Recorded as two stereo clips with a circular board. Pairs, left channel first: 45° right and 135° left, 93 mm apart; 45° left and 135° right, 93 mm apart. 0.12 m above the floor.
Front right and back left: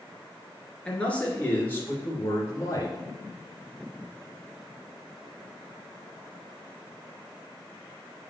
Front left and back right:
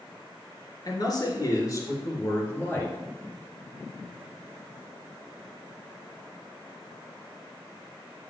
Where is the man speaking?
30° left, 2.5 m; by 3.0 s 15° right, 2 m.